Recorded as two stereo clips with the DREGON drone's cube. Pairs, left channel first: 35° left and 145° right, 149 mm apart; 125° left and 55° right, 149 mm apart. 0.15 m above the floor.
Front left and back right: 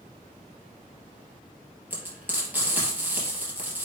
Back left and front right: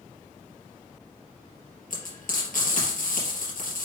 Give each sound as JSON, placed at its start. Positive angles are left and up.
{"t": 1.9, "sound": "frying", "azimuth_deg": 135, "distance_m": 3.5}